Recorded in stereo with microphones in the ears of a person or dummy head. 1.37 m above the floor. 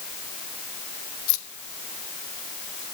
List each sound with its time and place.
1.3 s keys jangling: 55° left (ahead or behind), 0.8 m; by 2.8 s 45° left (ahead or behind), 2.5 m